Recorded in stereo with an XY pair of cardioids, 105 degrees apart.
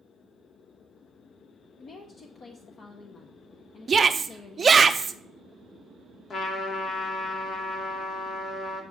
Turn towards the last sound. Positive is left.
turn(degrees=50)